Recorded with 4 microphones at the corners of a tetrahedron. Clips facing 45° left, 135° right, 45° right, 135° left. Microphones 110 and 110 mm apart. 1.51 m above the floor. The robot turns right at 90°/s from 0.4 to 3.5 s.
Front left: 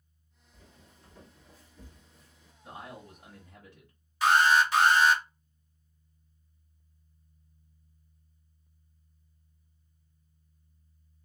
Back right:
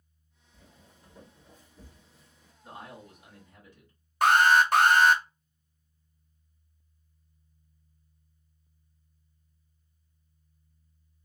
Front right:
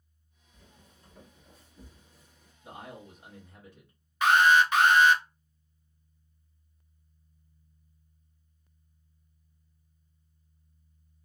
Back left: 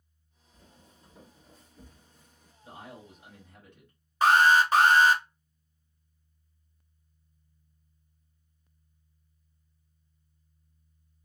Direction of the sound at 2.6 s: 40° right.